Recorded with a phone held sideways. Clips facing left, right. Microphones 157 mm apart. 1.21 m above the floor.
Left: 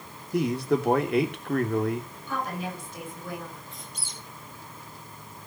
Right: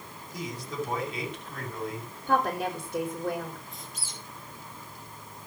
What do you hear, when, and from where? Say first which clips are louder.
0.3 s a man speaking: left 11 dB; 65° left (ahead or behind), 2.5 m
2.3 s a woman speaking: right 6 dB; 70° right (ahead or behind), 6 m
3.7 s a squeak: even; centre (ahead or behind), 3 m